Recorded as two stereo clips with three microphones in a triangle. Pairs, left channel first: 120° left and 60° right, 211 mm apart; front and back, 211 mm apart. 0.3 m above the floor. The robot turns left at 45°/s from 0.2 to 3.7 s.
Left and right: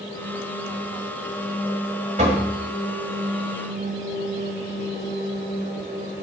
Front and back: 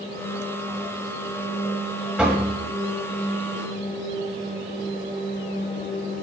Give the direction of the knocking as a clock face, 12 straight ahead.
3 o'clock.